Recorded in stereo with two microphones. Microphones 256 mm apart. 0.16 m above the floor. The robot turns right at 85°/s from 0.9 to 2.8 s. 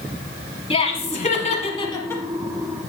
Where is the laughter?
25° left (ahead or behind), 1.3 m; by 2.2 s 5° left (ahead or behind), 1.3 m.